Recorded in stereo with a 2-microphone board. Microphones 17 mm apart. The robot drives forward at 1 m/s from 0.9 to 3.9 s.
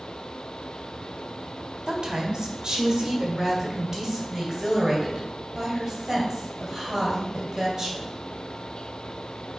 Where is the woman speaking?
45° right (ahead or behind), 1.7 m; by 8.1 s 30° right (ahead or behind), 2.5 m.